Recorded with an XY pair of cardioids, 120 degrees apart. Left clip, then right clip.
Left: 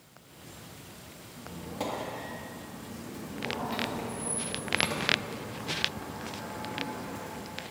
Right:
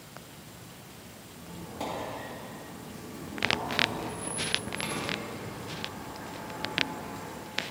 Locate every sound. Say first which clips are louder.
1.4 s a squeak: left 2 dB; 15° left, 2 m